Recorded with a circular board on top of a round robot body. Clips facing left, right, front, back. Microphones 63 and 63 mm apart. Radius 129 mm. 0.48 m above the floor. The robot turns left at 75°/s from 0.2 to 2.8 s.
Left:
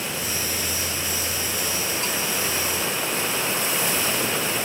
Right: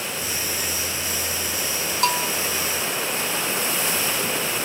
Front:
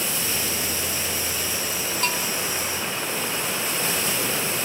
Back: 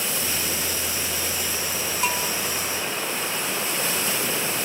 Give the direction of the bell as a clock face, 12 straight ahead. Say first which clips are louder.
Right 6 dB, back 2 dB; 3 o'clock.